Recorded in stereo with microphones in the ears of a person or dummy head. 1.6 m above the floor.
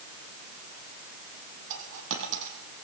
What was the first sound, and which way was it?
A dropped coin, 70° right (ahead or behind).